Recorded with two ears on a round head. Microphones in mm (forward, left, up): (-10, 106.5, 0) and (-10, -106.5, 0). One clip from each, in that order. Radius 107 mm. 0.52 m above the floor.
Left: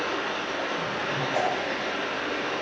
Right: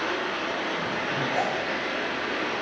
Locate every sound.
0.0 s running water: 5° right (ahead or behind), 3.5 m
1.3 s a whoosh: 35° left (ahead or behind), 1.9 m